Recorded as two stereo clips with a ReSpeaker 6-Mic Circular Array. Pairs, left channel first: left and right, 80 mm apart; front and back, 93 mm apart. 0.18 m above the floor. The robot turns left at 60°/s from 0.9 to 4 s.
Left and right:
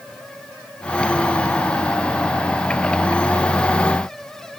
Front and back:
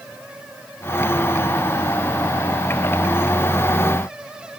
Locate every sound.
Only background noise.